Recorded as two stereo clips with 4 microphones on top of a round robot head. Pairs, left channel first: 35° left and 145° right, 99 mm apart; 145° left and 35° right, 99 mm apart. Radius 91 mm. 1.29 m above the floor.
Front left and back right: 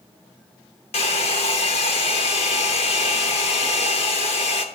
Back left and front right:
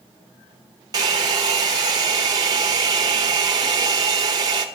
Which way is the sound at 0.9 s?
15° left.